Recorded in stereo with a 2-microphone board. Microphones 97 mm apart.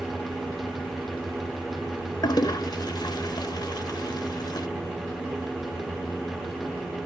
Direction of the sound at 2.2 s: 45° left (ahead or behind).